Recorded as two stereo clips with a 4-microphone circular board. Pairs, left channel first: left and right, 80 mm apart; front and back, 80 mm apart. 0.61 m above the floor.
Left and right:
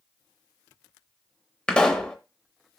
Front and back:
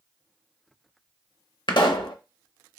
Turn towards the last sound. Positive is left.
turn(degrees=10)